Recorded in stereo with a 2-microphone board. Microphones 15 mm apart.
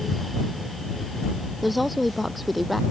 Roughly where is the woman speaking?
Centre.